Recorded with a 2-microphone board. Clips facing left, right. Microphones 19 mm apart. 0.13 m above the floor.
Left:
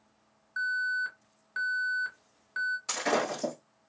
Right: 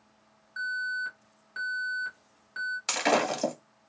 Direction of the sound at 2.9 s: 60° right (ahead or behind).